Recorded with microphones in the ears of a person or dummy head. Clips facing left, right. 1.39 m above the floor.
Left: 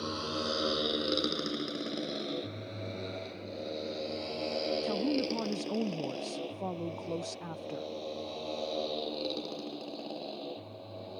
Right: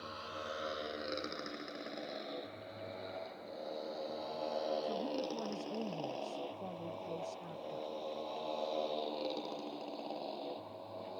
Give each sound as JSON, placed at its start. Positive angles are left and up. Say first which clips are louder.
{"t": 0.0, "sound": "a motorcycle", "louder": "left 11 dB", "side_deg": 65}
{"t": 4.8, "sound": "a woman speaking", "louder": "left 7 dB", "side_deg": 75}